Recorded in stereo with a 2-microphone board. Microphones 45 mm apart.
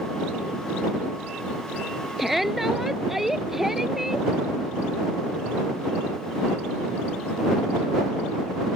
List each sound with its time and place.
2.2 s a shout: 5° right (ahead or behind); by 4.3 s 10° right (ahead or behind)